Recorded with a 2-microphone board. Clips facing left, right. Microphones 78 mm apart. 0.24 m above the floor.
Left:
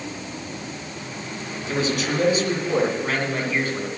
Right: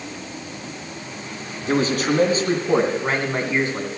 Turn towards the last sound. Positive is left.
turn(degrees=-25)  # may be behind; listen again after turning